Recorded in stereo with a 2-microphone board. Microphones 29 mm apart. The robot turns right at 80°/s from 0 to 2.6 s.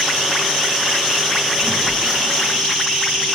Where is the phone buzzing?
50° right, 3 m; by 2.6 s 30° left, 3 m.